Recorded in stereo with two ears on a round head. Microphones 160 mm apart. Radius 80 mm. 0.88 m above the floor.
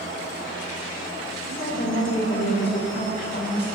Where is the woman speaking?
45° left (ahead or behind), 3.5 m.